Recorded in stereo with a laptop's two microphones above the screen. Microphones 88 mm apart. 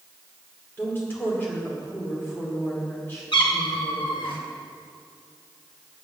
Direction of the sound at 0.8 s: 25° left (ahead or behind).